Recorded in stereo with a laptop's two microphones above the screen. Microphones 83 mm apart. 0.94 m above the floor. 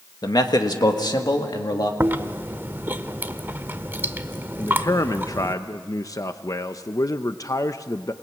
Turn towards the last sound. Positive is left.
turn(degrees=45)  # may be behind; listen again after turning